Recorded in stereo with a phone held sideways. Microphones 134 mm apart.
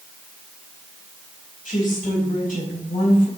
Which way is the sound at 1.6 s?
85° left.